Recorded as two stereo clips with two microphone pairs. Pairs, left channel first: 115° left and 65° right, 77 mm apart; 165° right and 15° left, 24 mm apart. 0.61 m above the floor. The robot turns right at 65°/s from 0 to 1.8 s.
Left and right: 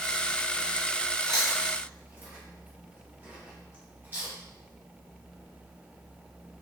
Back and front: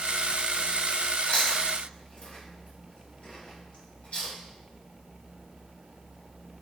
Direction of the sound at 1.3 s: 165° right.